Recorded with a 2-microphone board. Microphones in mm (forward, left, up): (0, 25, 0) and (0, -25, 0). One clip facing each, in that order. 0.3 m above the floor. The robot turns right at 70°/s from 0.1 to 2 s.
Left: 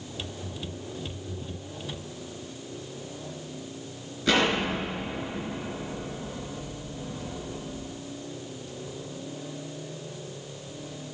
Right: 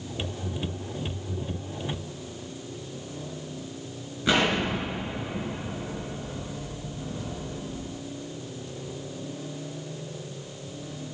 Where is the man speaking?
No man speaking in this recording.